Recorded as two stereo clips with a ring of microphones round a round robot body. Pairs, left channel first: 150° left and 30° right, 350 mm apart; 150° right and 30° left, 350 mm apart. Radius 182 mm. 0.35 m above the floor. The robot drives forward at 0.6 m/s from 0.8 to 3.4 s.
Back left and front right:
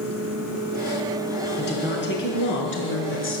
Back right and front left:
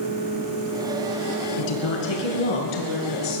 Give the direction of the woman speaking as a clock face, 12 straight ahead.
5 o'clock.